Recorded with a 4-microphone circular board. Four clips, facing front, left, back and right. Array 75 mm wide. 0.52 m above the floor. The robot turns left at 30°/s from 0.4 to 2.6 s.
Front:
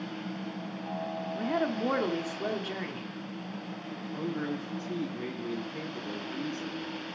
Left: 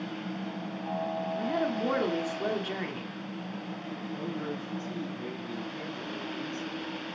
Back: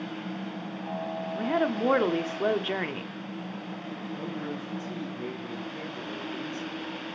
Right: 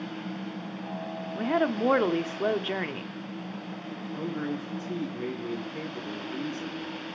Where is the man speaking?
55° right, 6.5 m.